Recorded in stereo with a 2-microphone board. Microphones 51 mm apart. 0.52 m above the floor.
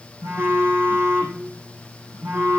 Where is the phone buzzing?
60° right (ahead or behind), 5 m.